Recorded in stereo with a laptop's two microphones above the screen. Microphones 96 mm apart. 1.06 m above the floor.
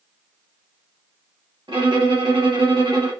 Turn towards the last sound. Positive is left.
turn(degrees=-70)  # may be behind; listen again after turning